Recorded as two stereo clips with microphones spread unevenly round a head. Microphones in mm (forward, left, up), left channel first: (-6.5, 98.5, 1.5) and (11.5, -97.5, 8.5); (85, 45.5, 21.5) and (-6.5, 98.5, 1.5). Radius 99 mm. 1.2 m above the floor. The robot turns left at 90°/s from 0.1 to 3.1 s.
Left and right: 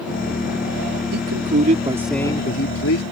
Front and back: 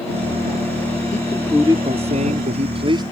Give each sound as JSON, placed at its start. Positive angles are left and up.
{"t": 1.1, "sound": "a man speaking", "azimuth_deg": -85}